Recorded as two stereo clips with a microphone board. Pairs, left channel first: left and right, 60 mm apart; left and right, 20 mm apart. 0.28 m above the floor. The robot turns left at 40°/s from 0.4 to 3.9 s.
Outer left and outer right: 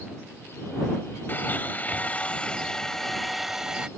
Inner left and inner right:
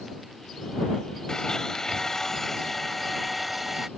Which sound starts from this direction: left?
A blender, at 1.3 s.